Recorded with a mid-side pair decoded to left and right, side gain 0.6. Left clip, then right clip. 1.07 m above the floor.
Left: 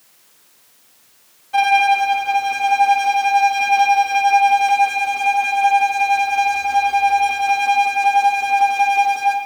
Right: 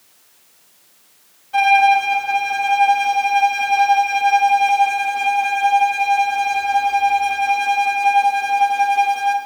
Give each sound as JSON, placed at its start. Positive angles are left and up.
{"t": 1.5, "sound": "a violin", "azimuth_deg": 10, "distance_m": 0.6}